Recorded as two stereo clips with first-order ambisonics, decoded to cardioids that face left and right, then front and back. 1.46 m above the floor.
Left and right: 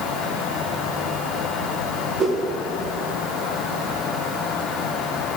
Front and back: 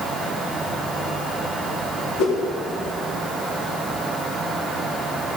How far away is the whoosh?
About 1.4 m.